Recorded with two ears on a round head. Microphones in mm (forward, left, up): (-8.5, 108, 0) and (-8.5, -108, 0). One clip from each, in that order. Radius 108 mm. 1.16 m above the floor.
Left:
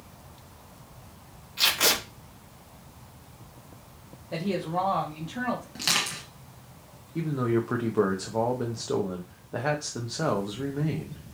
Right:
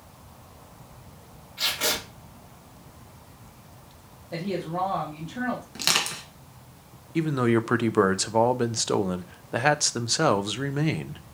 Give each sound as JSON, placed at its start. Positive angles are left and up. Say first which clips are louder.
{"t": 1.6, "sound": "tape being pulled", "louder": "left 3 dB", "side_deg": 35, "distance_m": 3.5}
{"t": 4.3, "sound": "a woman speaking", "louder": "left 1 dB", "side_deg": 25, "distance_m": 1.6}
{"t": 5.8, "sound": "crushing", "louder": "right 3 dB", "side_deg": -25, "distance_m": 1.9}
{"t": 7.2, "sound": "a man speaking", "louder": "right 4 dB", "side_deg": -65, "distance_m": 0.6}